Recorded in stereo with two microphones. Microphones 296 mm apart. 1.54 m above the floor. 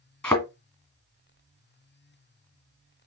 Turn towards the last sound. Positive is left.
turn(degrees=5)  # may be behind; listen again after turning